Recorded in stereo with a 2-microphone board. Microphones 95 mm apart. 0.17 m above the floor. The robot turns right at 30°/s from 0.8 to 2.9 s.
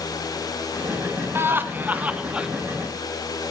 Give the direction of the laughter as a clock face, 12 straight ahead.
2 o'clock.